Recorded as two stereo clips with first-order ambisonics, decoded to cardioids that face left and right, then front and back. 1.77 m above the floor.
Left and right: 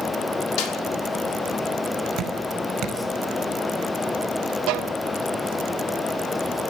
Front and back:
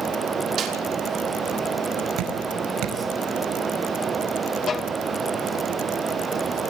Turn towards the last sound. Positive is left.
turn(degrees=-65)